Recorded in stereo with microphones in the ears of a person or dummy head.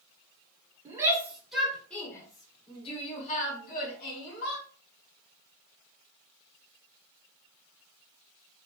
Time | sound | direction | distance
0.8 | a shout | 20° right (ahead or behind) | 1.5 m